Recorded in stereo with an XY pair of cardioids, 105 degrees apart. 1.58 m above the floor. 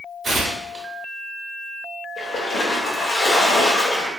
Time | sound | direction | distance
0.2 | tearing paper | 30° right | 1.0 m
2.2 | a splash | 60° left | 0.8 m